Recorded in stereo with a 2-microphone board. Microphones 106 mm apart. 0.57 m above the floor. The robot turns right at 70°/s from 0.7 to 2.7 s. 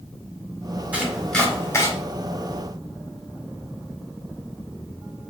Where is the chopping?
15° right (ahead or behind), 1.5 m; by 1.9 s 30° left (ahead or behind), 1.5 m.